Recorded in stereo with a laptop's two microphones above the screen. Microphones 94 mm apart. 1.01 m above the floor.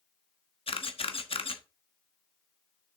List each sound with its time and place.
0.7 s a camera shutter: 80° left, 1.1 m